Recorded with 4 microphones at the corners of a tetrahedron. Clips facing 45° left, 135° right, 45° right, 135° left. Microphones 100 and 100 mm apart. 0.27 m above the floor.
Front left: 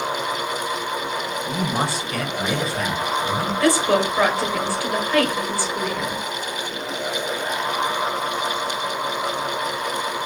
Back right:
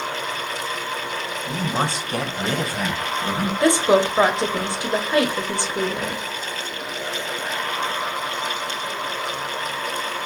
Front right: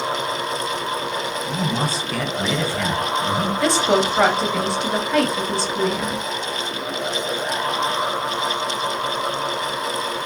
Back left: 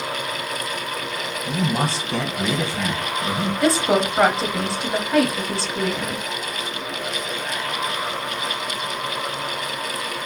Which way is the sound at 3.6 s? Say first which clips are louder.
Back right 2 dB, even; 140° right.